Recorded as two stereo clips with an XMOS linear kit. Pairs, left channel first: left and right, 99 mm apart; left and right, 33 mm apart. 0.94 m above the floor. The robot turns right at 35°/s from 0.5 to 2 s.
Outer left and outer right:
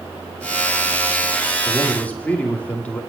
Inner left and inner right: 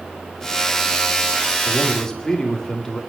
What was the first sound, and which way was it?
A man speaking, 5° left (ahead or behind).